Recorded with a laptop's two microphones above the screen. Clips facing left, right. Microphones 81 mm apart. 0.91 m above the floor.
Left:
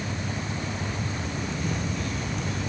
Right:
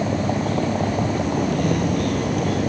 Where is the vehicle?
70° right (ahead or behind); by 2.7 s 55° right (ahead or behind).